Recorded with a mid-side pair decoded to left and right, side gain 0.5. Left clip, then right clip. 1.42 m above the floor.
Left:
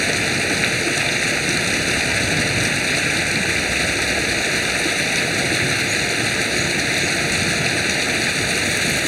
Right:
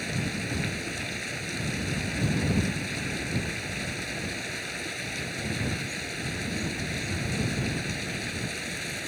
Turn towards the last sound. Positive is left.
turn(degrees=70)